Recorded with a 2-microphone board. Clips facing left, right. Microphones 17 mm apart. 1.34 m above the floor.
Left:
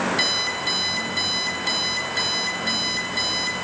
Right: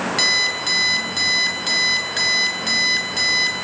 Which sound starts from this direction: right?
An alarm clock, at 0.2 s.